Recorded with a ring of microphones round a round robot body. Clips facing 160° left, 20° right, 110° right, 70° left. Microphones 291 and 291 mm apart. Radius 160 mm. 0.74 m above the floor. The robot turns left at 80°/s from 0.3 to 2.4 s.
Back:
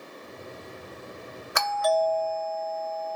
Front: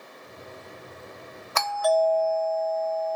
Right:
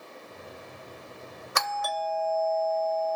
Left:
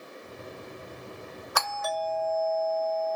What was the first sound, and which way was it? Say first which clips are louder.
A doorbell: front 2 dB, left 1 dB; 140° right.